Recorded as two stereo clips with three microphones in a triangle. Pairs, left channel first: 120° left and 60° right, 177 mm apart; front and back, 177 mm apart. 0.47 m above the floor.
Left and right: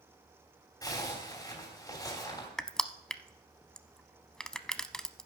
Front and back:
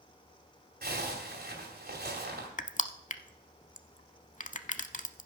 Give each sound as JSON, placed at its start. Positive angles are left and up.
{"t": 0.8, "sound": "a zipper", "azimuth_deg": -175, "distance_m": 2.5}
{"t": 2.6, "sound": "crushing", "azimuth_deg": 35, "distance_m": 0.6}